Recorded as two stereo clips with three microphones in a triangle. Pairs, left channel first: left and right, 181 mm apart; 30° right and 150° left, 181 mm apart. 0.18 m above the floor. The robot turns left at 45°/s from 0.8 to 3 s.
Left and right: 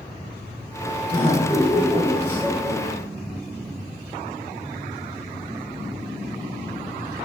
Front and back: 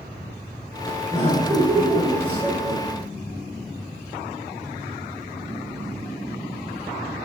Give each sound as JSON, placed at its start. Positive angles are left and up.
{"t": 1.1, "sound": "laughter", "azimuth_deg": 35, "distance_m": 1.3}